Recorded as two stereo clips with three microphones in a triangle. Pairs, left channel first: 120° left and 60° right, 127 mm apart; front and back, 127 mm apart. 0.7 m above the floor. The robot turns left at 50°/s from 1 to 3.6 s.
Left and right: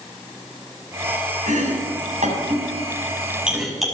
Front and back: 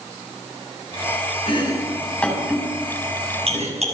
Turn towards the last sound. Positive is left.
turn(degrees=-150)